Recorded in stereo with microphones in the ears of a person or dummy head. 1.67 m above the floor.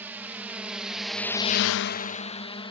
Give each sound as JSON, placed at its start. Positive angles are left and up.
{"t": 0.0, "sound": "a drone", "side_deg": -10}